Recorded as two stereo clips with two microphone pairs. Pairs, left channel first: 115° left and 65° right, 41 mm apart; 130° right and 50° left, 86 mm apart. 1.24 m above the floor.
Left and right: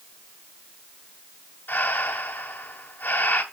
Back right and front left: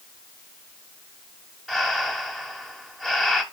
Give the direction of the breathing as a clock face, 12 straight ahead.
7 o'clock.